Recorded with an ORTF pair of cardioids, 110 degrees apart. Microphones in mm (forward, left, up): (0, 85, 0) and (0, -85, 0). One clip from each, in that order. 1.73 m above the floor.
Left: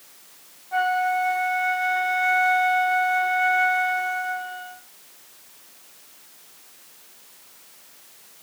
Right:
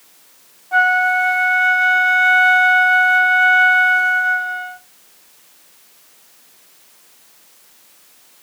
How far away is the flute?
About 0.6 m.